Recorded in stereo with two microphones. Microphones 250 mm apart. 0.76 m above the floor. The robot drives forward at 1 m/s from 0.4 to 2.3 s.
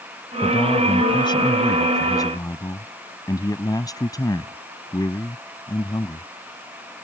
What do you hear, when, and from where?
0.4 s a man speaking: 20° left (ahead or behind); by 6.3 s 15° left (ahead or behind)